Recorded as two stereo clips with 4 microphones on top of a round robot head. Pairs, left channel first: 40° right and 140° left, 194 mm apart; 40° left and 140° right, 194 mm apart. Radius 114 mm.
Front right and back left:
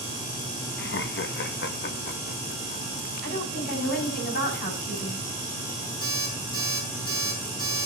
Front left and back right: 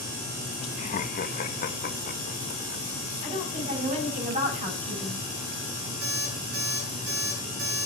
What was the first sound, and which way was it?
Laughter, 10° right.